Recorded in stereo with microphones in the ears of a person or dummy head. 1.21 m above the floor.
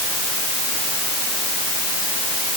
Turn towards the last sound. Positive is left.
No sound to turn to.